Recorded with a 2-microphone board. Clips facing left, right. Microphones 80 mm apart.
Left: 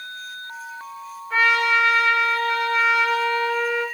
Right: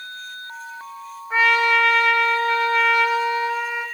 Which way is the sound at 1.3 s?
15° right (ahead or behind).